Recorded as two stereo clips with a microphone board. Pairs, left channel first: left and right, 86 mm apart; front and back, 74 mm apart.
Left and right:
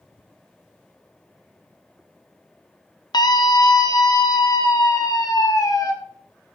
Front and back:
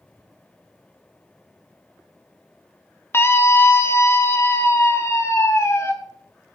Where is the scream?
55° left, 1.1 m; by 5.9 s 50° left, 3.5 m.